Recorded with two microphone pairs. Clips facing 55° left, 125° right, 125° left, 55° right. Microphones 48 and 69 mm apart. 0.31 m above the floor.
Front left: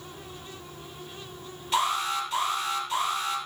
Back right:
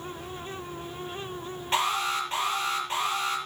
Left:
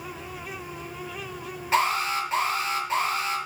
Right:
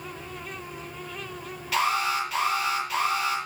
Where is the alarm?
Straight behind, 6 m.